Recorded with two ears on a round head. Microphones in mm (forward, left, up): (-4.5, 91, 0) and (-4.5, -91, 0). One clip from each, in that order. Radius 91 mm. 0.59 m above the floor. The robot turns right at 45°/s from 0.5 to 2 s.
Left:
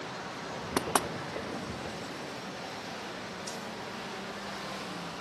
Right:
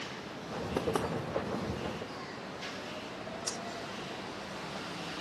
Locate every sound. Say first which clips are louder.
0.8 s knocking: left 3 dB; 60° left (ahead or behind), 0.6 m; by 1.1 s 50° left (ahead or behind), 0.6 m
3.5 s breathing: right 4 dB; 15° right (ahead or behind), 0.6 m